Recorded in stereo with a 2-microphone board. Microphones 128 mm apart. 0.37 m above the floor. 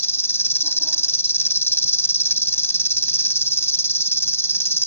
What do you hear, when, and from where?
0.0 s an insect: 20° left (ahead or behind)